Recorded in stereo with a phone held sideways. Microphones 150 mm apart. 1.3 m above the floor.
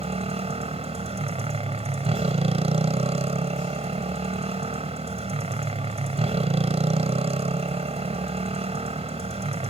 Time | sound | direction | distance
0.0 | a motorcycle | 45° right (ahead or behind) | ?